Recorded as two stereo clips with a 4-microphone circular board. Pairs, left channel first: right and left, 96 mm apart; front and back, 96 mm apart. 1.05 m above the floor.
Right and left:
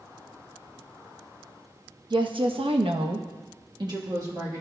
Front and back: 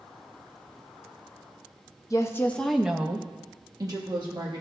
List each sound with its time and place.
2.1 s a woman speaking: 55° left, 0.9 m; by 4.6 s 145° left, 1.8 m